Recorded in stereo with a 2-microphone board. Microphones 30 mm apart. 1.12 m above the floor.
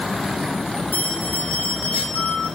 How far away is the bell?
About 10 m.